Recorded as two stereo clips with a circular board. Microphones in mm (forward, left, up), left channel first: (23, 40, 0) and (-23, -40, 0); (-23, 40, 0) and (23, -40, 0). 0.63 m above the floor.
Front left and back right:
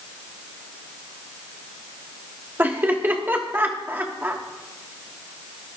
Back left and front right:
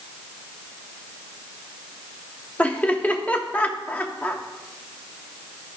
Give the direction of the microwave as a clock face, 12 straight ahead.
I don't hear a microwave.